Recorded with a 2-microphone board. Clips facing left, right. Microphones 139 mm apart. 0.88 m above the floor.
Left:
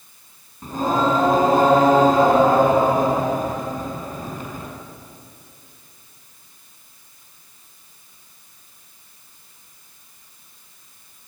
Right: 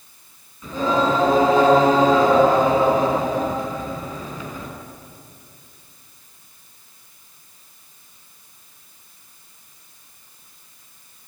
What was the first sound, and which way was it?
Singing, 50° left (ahead or behind).